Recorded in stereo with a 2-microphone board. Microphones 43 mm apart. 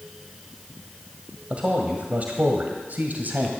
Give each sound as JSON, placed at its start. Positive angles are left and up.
{"t": 1.5, "sound": "a man speaking", "side_deg": -30, "distance_m": 1.7}